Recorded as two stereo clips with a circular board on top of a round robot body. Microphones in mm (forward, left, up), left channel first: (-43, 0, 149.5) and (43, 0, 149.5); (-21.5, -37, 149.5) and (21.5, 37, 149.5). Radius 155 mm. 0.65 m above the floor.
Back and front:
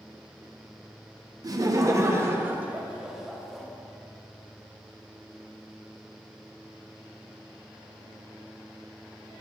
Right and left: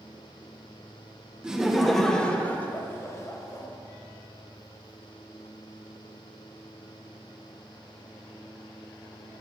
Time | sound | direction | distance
1.4 | laughter | 15° right | 1.3 m